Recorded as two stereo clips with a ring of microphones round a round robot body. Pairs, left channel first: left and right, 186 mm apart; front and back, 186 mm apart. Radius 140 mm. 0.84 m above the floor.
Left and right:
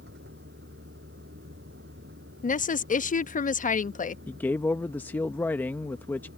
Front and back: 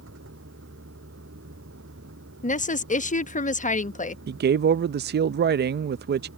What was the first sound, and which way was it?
A vehicle, 140° right.